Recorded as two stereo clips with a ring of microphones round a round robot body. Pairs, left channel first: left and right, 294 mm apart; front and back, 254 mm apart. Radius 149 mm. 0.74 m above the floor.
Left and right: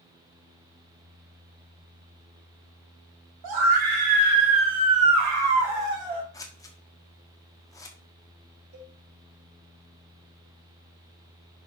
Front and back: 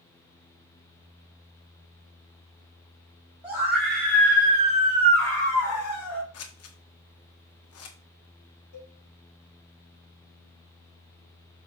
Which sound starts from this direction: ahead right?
A cowbell, at 8.7 s.